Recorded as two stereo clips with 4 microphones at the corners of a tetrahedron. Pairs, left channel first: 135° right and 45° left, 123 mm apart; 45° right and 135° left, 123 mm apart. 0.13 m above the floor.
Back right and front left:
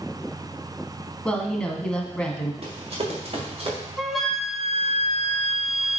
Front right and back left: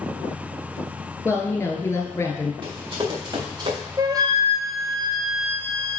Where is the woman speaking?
65° right, 1.3 m.